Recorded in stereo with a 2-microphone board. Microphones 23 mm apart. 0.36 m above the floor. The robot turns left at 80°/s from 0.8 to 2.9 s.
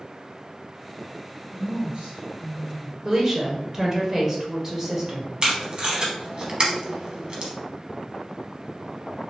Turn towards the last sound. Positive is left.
turn(degrees=-45)  # may be behind; listen again after turning